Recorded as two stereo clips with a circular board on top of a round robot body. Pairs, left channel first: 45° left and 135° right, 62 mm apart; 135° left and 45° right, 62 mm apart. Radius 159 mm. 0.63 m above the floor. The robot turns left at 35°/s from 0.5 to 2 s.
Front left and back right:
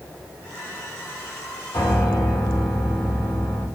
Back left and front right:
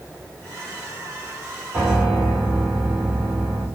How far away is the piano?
About 2 m.